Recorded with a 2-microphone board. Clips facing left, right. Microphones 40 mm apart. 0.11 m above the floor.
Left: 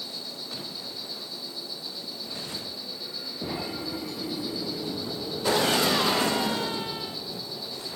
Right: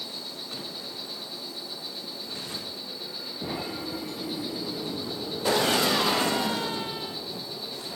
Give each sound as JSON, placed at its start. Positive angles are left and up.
{"t": 0.0, "sound": "an insect", "side_deg": -35, "distance_m": 6.0}